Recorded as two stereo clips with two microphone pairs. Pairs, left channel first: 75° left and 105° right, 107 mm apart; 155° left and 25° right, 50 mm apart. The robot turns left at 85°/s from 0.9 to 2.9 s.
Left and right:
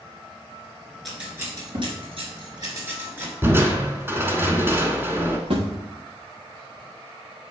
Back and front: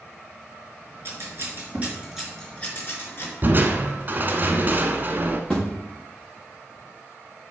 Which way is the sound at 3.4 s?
45° right.